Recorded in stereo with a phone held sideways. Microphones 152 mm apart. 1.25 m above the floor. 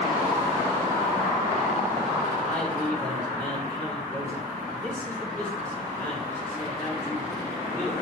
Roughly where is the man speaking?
Centre.